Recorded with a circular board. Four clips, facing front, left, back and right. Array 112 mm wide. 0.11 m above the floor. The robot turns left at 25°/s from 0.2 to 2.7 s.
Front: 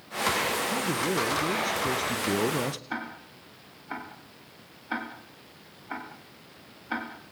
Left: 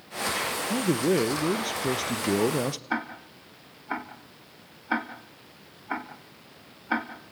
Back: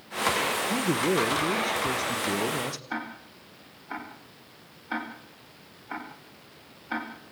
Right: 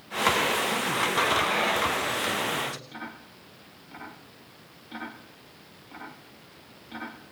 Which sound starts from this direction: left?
Ticking, at 2.9 s.